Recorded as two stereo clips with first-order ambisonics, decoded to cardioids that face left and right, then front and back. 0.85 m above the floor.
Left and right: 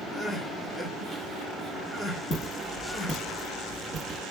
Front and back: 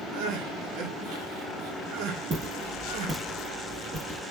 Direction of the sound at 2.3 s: 135° left.